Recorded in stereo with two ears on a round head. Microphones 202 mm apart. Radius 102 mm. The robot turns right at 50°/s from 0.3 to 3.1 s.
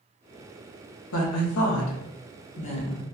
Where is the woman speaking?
65° left (ahead or behind), 0.8 m; by 3.0 s 15° left (ahead or behind), 0.8 m.